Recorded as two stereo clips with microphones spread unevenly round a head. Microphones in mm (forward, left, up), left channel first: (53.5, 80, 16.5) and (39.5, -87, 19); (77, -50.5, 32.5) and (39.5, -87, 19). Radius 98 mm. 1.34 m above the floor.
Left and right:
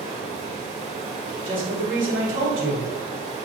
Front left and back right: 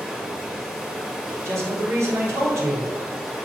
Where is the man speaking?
110° right, 1.8 m.